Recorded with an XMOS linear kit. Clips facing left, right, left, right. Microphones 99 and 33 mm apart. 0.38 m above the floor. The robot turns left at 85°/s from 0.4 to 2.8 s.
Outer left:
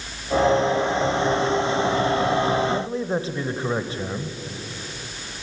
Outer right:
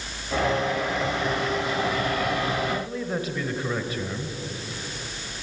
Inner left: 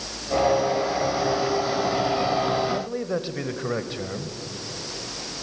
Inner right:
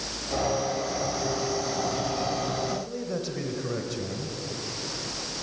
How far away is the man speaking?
About 1.7 m.